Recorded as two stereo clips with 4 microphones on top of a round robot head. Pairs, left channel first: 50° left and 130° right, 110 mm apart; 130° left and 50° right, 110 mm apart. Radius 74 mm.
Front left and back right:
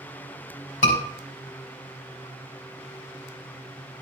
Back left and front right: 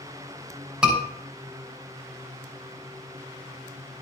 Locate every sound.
0.8 s a scream: 30° left, 6.5 m